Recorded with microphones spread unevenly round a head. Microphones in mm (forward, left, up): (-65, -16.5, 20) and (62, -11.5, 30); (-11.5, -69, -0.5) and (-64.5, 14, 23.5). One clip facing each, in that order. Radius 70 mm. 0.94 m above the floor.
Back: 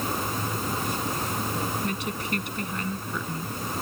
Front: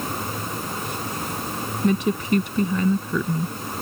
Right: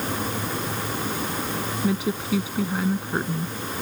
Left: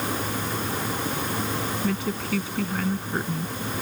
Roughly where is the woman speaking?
Ahead left.